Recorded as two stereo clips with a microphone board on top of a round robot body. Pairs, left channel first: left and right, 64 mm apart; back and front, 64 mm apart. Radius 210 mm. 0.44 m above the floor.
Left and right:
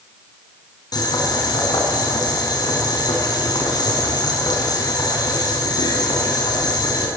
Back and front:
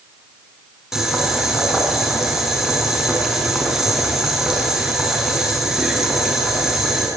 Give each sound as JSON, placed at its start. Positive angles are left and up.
{"t": 0.9, "sound": "boiling", "azimuth_deg": 85, "distance_m": 5.5}